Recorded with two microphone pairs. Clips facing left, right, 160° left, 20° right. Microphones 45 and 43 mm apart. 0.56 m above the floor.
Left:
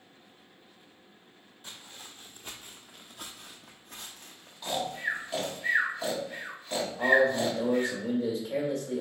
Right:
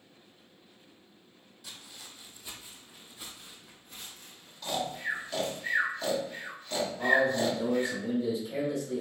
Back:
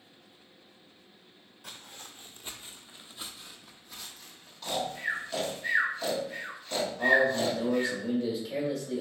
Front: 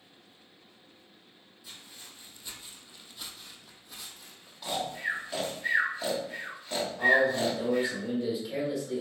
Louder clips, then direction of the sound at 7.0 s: Left 2 dB, front 1 dB; 65° left.